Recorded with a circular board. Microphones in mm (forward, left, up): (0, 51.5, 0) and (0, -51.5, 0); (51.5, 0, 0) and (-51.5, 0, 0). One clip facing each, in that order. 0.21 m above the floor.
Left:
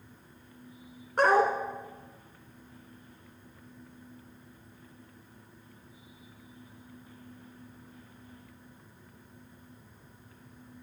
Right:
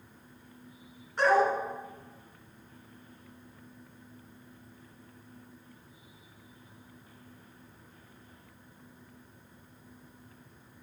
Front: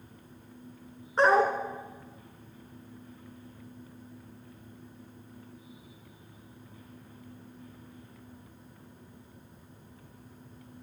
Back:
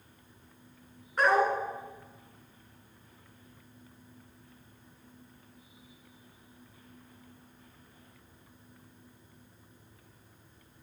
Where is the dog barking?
55° left, 1.0 m.